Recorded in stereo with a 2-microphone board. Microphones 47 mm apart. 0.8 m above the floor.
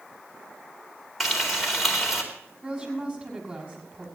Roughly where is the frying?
Centre.